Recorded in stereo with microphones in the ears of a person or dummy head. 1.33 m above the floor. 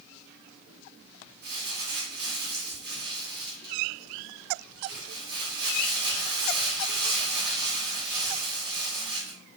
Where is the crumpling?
55° right (ahead or behind), 1.7 m.